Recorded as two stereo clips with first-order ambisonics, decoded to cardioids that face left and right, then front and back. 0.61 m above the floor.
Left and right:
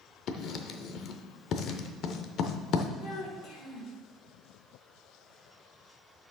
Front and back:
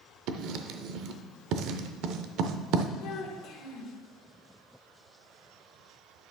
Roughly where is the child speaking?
Ahead left.